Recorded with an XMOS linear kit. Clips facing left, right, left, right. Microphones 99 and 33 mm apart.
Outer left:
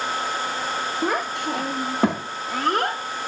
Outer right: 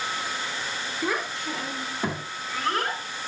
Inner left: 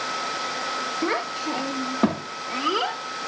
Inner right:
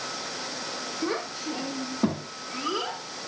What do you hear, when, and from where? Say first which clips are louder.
1.0 s a child speaking: outer left 3 dB, inner left 3 dB; 50° left (ahead or behind), 1.4 m; by 3.0 s 65° left (ahead or behind), 1.7 m